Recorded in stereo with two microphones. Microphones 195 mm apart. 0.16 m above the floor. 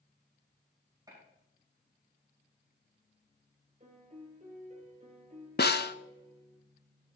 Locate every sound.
1.1 s a gunshot: 20° right (ahead or behind), 7 m
3.8 s a piano: 35° right (ahead or behind), 2.5 m
5.6 s a snare drum: 55° left (ahead or behind), 0.6 m